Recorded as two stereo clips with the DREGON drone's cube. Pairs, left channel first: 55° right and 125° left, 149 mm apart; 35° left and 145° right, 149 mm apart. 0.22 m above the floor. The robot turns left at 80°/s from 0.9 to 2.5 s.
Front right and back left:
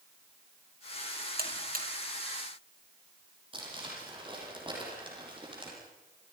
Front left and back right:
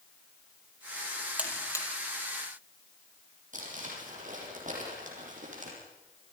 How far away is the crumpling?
About 8.5 m.